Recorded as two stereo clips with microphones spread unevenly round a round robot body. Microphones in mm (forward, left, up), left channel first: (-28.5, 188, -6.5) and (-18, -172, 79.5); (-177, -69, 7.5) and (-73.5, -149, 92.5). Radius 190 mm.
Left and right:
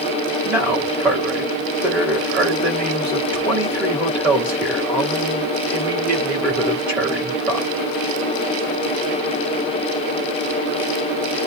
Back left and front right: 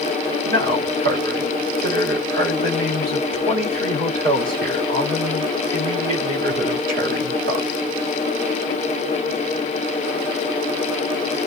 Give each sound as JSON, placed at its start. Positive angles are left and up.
{"t": 0.5, "sound": "a man speaking", "azimuth_deg": 5, "distance_m": 2.0}